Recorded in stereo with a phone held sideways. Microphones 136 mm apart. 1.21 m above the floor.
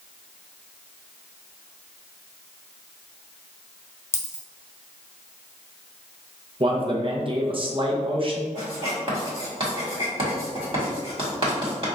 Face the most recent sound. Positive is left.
turn(degrees=-40)  # may be behind; listen again after turning